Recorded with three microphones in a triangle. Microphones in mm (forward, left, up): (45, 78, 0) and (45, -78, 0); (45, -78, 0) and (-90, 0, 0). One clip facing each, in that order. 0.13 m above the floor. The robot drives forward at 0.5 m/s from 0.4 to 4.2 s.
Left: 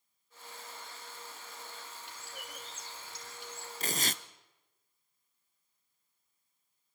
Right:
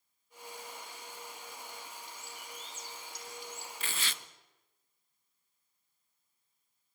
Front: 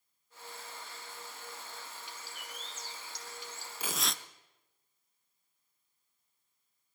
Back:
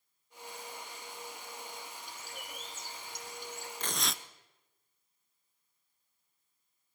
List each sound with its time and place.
2.1 s a bird: 110° left, 4.5 m; by 3.7 s 115° left, 5 m
3.8 s tearing paper: 50° left, 0.8 m; by 4.2 s 65° left, 0.7 m